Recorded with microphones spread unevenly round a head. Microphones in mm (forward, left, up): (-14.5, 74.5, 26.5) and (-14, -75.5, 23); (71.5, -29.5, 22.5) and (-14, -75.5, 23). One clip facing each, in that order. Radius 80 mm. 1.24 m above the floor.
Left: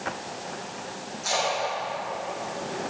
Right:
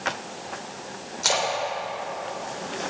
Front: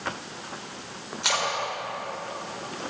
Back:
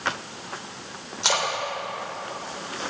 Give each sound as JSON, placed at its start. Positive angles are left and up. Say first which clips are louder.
{"t": 1.2, "sound": "a splash", "louder": "right 1 dB, back 2 dB", "azimuth_deg": -90, "distance_m": 3.5}